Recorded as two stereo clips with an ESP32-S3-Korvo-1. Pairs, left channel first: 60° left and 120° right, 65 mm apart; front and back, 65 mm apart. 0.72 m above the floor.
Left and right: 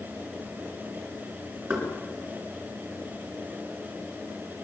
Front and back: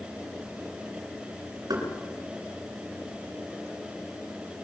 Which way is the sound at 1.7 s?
175° left.